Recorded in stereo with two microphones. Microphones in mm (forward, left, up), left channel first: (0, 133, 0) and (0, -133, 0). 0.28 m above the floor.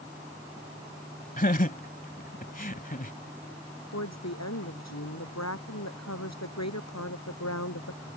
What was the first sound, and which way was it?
Laughter, 35° left (ahead or behind).